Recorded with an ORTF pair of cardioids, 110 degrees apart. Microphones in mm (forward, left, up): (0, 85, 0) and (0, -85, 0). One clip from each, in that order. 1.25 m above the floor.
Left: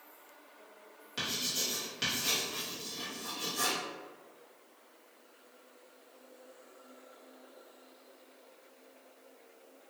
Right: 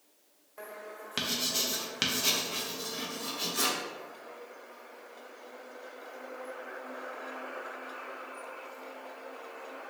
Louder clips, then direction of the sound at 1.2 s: Right 3 dB; 50° right.